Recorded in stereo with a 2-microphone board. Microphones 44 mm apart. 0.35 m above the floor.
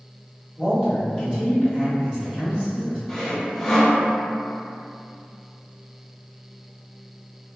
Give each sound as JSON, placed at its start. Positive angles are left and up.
{"t": 0.6, "sound": "a man speaking", "side_deg": -15, "distance_m": 1.4}
{"t": 3.1, "sound": "sawing", "side_deg": 0, "distance_m": 0.5}